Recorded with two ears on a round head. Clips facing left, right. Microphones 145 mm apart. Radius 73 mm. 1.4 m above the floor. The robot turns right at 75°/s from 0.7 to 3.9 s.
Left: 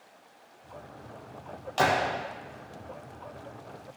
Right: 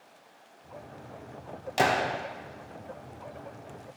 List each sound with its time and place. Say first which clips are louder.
1.8 s a gunshot: even; 20° right (ahead or behind), 1.3 m; by 2.1 s 45° right (ahead or behind), 1.3 m